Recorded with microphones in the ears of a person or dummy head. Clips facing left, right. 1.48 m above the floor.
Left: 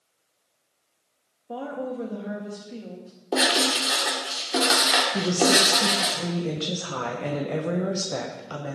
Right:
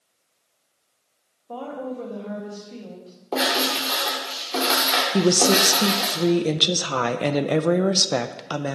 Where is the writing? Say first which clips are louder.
Even; 15° left (ahead or behind), 2.5 m.